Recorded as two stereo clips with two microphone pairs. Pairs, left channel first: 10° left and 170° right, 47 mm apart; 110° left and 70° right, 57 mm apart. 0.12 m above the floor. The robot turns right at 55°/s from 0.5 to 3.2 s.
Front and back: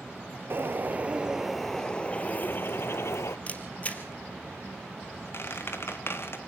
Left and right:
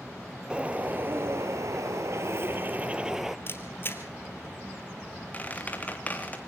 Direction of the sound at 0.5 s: 135° right.